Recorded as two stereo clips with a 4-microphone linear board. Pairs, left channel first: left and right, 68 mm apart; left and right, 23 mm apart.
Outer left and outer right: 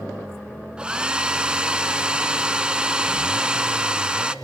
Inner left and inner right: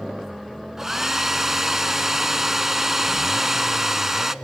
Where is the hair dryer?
15° right (ahead or behind), 0.5 m.